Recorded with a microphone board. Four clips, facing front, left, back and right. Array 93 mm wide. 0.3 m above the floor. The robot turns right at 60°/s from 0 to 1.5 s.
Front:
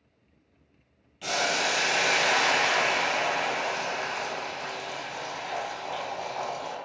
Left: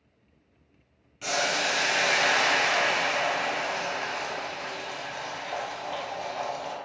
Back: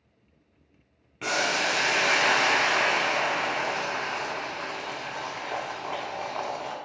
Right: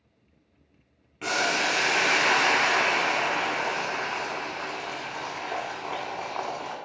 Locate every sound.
1.2 s boiling: 150° right, 0.5 m; by 6.8 s 130° right, 0.5 m